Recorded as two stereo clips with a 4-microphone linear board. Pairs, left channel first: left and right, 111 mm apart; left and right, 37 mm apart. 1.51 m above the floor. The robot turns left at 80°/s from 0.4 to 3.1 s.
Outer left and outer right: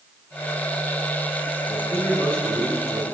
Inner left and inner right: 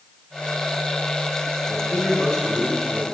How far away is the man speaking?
About 9 m.